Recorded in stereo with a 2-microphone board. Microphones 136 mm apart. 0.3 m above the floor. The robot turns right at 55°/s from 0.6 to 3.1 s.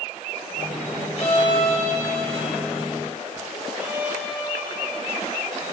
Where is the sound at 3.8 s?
15° right (ahead or behind), 4 m.